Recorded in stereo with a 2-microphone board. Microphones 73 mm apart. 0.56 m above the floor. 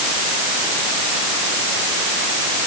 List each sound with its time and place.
Only background noise.